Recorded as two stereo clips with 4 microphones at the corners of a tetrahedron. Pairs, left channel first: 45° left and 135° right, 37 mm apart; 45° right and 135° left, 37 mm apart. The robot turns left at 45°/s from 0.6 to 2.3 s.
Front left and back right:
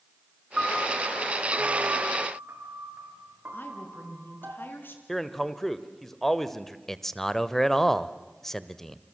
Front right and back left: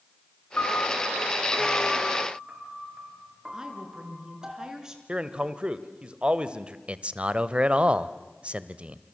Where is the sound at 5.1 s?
125° left, 1.3 m.